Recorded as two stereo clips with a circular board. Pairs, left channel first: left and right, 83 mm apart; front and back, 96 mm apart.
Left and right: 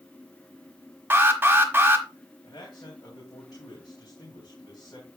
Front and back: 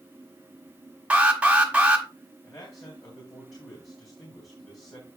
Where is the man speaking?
50° left, 2.5 m.